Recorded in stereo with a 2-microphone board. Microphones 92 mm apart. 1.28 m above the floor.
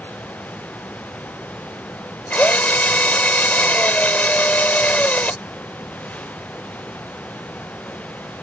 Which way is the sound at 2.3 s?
15° left (ahead or behind).